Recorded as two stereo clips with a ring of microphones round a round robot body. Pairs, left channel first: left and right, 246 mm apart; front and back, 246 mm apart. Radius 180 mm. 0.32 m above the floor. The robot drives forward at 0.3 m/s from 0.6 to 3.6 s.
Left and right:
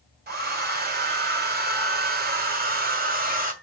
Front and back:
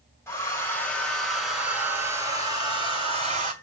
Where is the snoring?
I don't hear snoring.